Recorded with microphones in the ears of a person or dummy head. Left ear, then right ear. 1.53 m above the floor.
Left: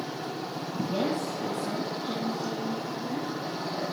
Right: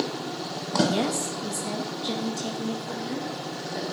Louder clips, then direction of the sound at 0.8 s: Right 3 dB; 75° right (ahead or behind).